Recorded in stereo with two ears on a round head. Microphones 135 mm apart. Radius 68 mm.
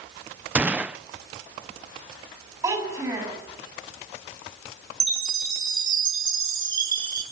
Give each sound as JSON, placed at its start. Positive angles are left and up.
{"t": 0.6, "sound": "a gunshot", "side_deg": -10, "distance_m": 0.6}
{"t": 2.6, "sound": "a child speaking", "side_deg": -20, "distance_m": 7.5}
{"t": 5.0, "sound": "a chime", "side_deg": -30, "distance_m": 7.5}